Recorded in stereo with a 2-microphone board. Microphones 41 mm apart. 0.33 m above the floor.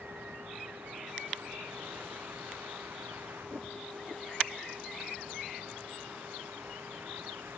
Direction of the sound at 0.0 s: 85° right.